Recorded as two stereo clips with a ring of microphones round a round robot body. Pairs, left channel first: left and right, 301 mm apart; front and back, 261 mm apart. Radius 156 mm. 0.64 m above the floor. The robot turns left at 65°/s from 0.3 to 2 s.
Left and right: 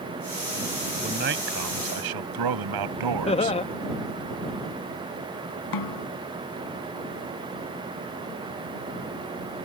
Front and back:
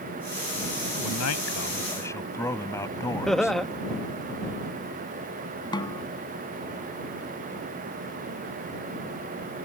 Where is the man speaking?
20° right; by 3.6 s 80° right.